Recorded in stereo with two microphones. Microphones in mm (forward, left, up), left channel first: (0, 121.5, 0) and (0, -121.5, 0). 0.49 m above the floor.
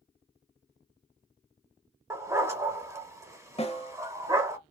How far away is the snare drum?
About 0.6 m.